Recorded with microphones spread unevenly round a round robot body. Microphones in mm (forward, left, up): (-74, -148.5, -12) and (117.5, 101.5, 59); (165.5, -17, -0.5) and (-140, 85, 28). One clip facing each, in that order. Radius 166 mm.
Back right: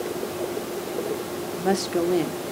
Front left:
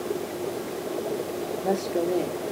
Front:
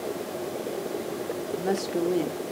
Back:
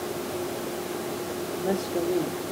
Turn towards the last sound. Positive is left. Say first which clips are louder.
# back right 3 dB, even
turn(degrees=-85)